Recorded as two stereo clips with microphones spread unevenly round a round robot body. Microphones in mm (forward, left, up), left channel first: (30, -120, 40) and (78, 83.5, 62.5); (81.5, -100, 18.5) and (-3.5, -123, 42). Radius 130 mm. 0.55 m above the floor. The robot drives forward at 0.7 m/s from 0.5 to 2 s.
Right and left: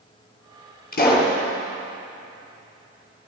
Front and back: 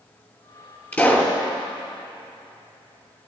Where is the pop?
55° right, 5.5 m; by 1.4 s 60° right, 5.5 m.